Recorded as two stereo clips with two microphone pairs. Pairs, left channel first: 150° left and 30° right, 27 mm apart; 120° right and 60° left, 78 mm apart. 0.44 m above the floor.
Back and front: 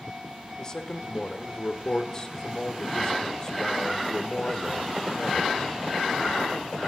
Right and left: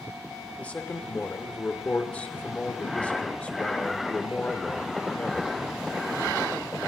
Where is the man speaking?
Straight behind, 0.8 m.